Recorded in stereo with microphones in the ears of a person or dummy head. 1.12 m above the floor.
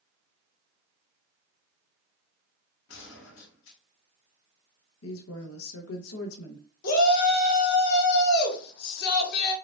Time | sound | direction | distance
2.9 | a gunshot | 65° left (ahead or behind) | 1.6 m
5.0 | a woman speaking | 80° left | 0.7 m
6.8 | a shout | 60° left (ahead or behind) | 1.3 m